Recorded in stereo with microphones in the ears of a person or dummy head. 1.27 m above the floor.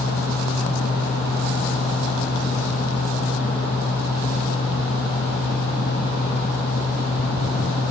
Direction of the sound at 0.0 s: 35° left (ahead or behind).